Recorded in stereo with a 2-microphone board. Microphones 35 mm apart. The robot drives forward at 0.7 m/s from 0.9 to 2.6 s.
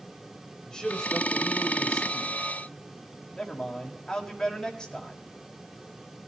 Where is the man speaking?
20° left (ahead or behind), 1.3 m; by 5.2 s 15° left (ahead or behind), 1.6 m.